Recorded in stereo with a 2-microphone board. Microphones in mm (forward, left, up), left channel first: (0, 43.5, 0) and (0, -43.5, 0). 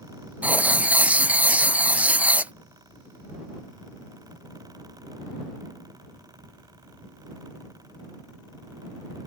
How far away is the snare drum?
No snare drum in this recording.